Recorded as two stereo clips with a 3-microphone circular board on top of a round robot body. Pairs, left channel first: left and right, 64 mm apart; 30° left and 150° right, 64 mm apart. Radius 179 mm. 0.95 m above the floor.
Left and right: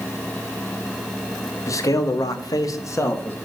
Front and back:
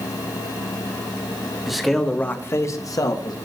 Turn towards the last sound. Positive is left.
turn(degrees=30)